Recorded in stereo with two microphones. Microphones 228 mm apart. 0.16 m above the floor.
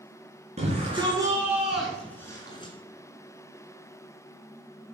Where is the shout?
30° right (ahead or behind), 2.5 m; by 2.7 s 20° left (ahead or behind), 2.5 m.